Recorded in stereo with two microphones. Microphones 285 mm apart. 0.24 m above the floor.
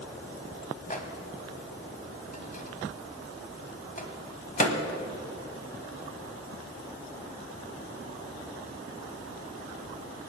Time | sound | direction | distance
0.9 | a microwave | 30° left (ahead or behind) | 1.4 m